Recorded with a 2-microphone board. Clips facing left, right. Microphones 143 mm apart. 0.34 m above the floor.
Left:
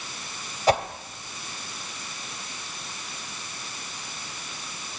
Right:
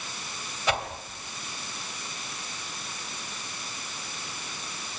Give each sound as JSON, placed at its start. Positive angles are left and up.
{"t": 0.7, "sound": "a whoosh", "side_deg": 40, "distance_m": 2.0}